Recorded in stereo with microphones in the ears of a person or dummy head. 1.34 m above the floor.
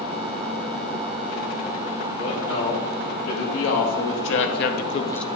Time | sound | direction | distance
2.2 | a man speaking | 85° left | 4 m